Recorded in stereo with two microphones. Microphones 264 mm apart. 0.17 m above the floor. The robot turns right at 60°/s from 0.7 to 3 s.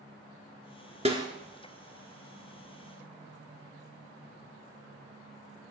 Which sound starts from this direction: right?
A snare drum, at 1.1 s.